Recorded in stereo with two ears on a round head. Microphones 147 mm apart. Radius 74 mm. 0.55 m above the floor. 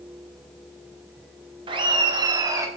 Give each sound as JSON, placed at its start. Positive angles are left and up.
{"t": 1.7, "sound": "laughter", "side_deg": -30, "distance_m": 1.4}